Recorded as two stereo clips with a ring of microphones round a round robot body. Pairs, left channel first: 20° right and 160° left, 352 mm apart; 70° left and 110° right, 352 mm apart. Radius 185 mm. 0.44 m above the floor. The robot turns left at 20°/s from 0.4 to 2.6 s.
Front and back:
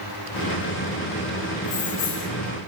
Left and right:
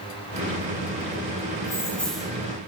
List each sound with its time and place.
1.6 s keys jangling: 10° right, 1.3 m; by 2.3 s 25° right, 1.3 m